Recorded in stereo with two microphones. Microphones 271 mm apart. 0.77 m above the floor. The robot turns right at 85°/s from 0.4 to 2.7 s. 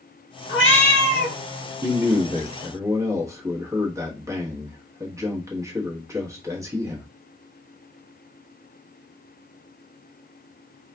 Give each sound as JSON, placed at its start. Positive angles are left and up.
{"t": 0.5, "sound": "a cat meowing", "azimuth_deg": 60, "distance_m": 1.0}
{"t": 1.8, "sound": "a man speaking", "azimuth_deg": -90, "distance_m": 1.0}